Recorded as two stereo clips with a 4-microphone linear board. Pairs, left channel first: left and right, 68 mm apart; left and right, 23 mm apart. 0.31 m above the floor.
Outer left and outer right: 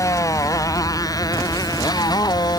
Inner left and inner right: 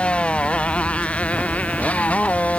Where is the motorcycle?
55° left (ahead or behind); by 2.6 s 80° left.